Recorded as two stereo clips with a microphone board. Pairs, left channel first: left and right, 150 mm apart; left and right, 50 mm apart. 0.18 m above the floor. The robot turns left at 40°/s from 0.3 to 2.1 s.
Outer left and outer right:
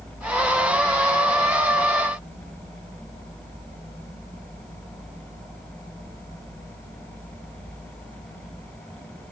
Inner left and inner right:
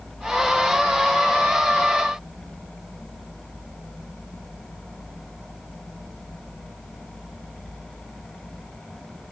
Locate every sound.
Only background noise.